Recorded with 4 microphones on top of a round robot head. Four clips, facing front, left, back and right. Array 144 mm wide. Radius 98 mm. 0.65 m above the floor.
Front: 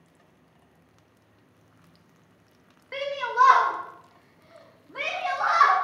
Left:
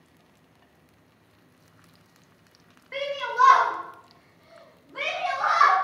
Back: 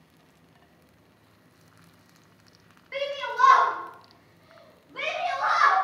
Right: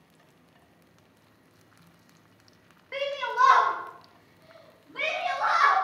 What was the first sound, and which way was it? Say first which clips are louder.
A shout: left 1 dB, front 4 dB; 15° right.